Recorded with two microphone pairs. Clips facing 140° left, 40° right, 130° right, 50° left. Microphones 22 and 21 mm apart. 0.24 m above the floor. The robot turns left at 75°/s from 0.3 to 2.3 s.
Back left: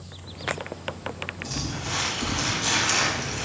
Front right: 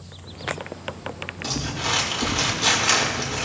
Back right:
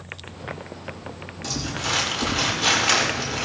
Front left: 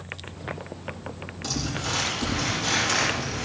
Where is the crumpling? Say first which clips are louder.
Front right 8 dB, back right 2 dB; 40° right, 8 m; by 3.4 s 105° right, 8 m.